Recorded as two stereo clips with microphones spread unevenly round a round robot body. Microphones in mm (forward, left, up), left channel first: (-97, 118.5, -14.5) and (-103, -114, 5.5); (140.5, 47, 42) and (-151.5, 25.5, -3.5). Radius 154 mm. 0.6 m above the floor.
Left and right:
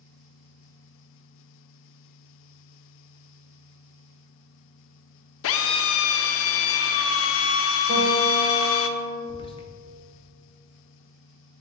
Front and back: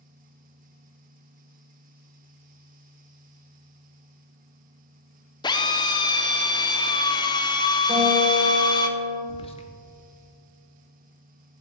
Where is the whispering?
75° left, 0.6 m.